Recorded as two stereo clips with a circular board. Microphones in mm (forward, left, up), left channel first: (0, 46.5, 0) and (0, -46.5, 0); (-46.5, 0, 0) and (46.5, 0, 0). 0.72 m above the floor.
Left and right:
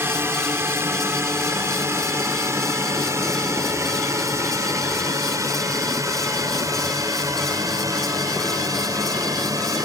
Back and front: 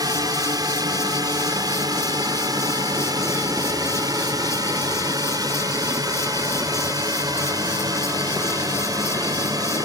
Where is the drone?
30° right; by 9.8 s 45° right.